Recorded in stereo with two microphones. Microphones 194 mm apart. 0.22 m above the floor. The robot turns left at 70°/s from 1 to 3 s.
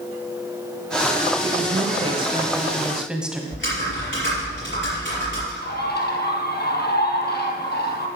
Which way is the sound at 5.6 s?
55° left (ahead or behind).